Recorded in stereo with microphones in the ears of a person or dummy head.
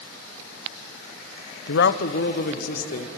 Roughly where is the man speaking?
Left.